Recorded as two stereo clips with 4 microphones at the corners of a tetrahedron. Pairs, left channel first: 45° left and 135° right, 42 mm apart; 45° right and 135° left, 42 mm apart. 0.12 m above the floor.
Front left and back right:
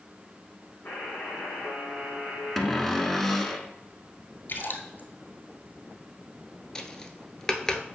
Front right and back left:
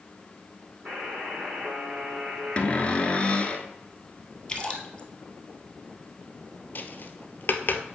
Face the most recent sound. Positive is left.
turn(degrees=-30)